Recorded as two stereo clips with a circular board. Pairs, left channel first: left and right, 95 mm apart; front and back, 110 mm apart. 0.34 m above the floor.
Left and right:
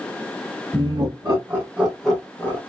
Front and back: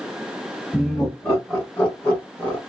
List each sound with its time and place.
0.7 s laughter: 85° right, 1.5 m; by 2.6 s 60° left, 1.1 m